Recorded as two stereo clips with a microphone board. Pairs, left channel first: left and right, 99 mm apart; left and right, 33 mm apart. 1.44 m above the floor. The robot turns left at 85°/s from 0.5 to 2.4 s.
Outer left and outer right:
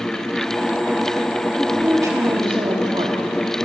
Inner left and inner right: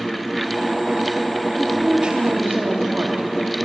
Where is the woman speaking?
10° left, 3 m; by 3.3 s 65° right, 3 m.